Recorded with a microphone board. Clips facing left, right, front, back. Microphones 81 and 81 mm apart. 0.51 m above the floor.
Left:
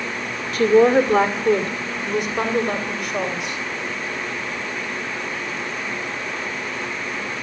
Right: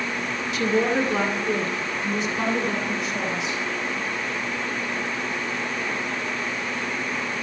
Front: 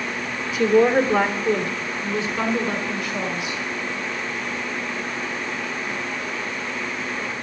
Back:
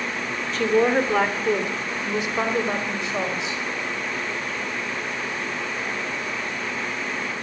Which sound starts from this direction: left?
A woman speaking, at 0.5 s.